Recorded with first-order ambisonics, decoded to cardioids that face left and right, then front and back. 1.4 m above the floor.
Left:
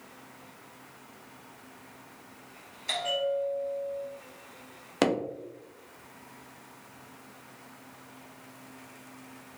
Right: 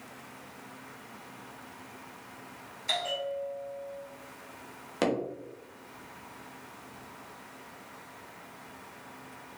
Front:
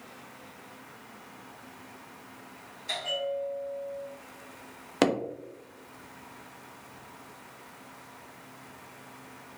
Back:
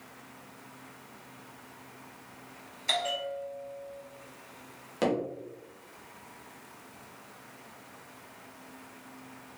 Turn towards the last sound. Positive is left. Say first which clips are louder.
# left 3 dB, front 3 dB
turn(degrees=25)